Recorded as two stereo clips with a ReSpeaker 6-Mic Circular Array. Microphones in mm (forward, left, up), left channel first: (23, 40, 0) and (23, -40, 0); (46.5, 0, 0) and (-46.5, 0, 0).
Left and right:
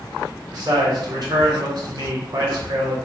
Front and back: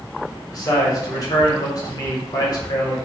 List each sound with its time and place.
0.5 s a man speaking: 50° right, 0.9 m